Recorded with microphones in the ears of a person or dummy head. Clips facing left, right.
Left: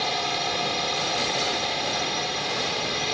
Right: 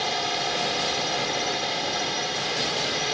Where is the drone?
Centre (ahead or behind).